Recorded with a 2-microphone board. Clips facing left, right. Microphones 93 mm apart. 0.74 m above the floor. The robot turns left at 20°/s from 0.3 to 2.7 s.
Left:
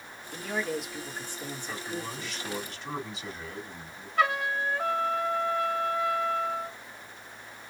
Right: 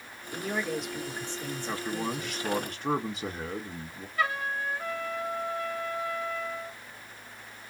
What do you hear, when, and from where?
0.3 s a man speaking: 175° right, 1.6 m; by 2.5 s 145° left, 1.6 m
1.7 s a man speaking: 45° right (ahead or behind), 1.2 m; by 4.1 s 50° right (ahead or behind), 1.2 m
4.2 s a trumpet: 80° left, 1.1 m